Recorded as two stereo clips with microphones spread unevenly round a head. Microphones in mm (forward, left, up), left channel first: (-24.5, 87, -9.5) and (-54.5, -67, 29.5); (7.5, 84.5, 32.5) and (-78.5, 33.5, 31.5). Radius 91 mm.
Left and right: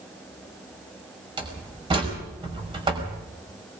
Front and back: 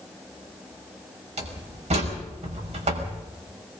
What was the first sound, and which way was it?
A door slam, 155° right.